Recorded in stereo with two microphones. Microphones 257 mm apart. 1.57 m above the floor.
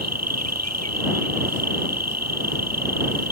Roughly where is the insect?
Right.